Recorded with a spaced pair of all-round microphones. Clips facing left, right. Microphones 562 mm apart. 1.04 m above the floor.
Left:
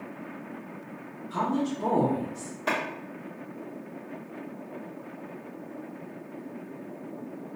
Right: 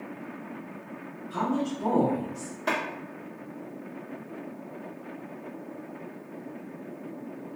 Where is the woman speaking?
25° left (ahead or behind), 1.5 m.